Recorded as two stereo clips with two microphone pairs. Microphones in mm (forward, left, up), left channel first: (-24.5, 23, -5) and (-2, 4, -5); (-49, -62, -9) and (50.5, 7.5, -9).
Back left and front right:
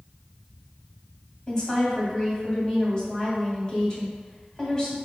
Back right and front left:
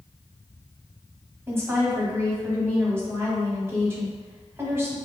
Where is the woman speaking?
90° left, 1.5 m.